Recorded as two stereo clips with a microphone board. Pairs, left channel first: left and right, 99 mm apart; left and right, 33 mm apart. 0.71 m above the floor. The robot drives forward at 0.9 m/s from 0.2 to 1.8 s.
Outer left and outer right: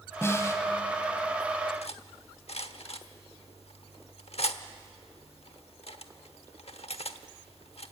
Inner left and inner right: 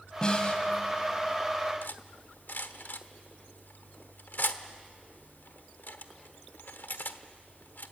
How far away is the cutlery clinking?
About 1.0 m.